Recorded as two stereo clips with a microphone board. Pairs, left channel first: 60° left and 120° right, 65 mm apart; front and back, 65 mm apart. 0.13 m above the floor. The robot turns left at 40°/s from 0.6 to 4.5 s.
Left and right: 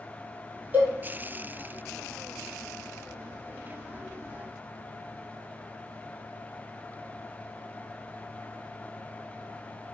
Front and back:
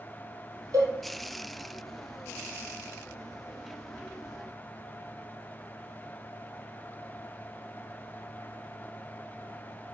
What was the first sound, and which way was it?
A cowbell, straight behind.